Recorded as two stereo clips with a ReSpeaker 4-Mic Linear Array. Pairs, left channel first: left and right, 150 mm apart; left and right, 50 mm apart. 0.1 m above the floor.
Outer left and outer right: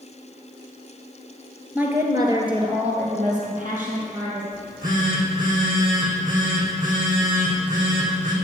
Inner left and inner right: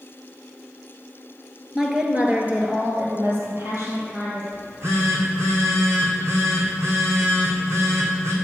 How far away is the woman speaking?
About 1.7 m.